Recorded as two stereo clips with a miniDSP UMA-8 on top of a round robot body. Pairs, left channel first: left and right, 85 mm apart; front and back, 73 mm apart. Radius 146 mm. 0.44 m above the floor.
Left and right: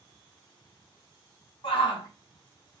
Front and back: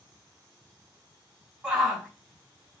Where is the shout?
105° left, 2.5 m.